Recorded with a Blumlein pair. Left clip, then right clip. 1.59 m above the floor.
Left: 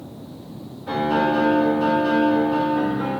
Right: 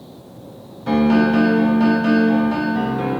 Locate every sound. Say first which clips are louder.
0.9 s a piano: right 3 dB; 35° right, 0.8 m